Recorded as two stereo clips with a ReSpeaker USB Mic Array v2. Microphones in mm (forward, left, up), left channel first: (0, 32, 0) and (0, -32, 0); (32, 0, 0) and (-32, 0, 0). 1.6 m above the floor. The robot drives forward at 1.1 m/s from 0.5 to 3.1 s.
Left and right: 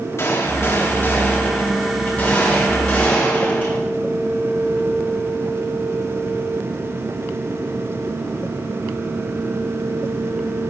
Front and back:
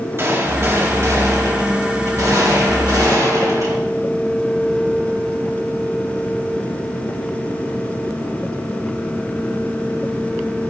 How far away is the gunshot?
About 2.5 m.